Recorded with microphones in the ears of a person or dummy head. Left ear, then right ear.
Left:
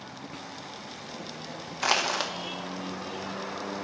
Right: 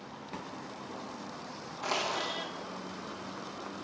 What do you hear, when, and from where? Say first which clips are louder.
1.8 s crushing: left 7 dB; 60° left (ahead or behind), 1.0 m